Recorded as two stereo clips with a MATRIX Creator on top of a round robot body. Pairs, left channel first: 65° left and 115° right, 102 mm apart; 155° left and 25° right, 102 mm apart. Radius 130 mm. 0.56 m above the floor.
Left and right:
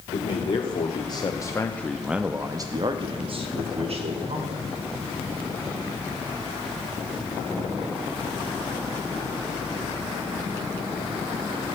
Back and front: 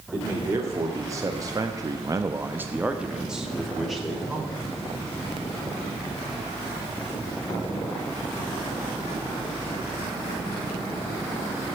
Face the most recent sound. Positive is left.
turn(degrees=-115)